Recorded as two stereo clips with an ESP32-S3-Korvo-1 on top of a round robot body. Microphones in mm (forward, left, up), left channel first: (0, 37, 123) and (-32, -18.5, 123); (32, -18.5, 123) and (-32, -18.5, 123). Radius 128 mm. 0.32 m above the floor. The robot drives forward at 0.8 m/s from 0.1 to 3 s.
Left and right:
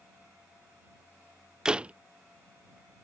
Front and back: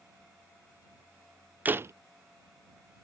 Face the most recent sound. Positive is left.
turn(degrees=180)